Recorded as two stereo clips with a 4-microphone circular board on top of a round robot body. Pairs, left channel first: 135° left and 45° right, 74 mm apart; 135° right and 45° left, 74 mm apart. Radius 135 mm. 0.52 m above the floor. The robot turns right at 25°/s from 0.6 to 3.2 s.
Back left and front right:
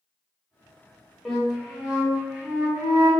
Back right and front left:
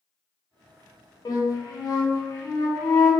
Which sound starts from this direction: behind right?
A flute, at 1.2 s.